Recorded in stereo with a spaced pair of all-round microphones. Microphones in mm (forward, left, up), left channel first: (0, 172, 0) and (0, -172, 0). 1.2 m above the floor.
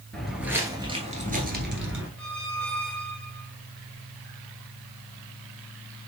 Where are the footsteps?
Centre (ahead or behind), 1.3 m; by 2.1 s 35° right (ahead or behind), 1.4 m.